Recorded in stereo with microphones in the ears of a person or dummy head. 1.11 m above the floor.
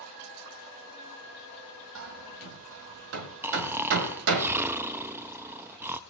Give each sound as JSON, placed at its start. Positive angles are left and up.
{"t": 1.9, "sound": "hammering", "side_deg": -60, "distance_m": 1.4}
{"t": 3.4, "sound": "snoring", "side_deg": -10, "distance_m": 0.6}